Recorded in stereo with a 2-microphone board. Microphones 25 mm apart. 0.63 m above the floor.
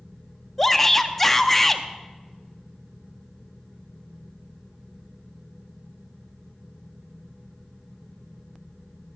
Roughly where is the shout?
Centre.